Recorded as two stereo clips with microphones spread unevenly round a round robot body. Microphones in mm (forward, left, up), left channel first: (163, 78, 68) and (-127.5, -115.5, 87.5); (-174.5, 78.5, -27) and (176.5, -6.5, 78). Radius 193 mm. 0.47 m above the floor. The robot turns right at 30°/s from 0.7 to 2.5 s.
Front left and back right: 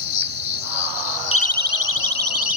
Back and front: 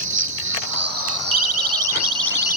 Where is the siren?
15° right; by 2.6 s 40° left.